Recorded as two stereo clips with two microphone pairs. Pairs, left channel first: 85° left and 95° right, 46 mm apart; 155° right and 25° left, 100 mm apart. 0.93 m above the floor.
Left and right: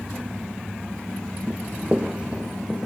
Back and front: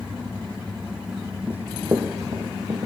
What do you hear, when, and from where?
1.5 s running footsteps: 45° right, 1.5 m; by 2.9 s 20° right, 2.5 m